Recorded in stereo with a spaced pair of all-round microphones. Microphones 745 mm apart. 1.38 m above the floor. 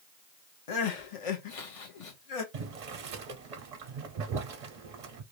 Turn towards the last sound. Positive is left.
turn(degrees=-60)  # may be behind; listen again after turning